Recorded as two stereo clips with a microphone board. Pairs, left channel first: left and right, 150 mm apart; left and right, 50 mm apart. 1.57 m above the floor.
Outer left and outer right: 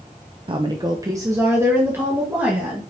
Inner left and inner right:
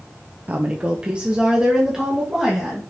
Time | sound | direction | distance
0.5 | a woman speaking | 35° right (ahead or behind) | 0.6 m